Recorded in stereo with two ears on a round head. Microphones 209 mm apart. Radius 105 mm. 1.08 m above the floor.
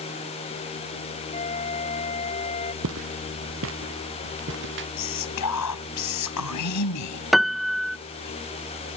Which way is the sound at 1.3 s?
25° left (ahead or behind).